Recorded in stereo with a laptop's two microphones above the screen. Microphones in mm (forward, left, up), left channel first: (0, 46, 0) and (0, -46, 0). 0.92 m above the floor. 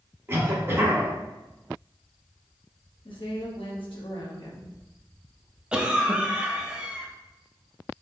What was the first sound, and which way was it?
A cough, 30° right (ahead or behind).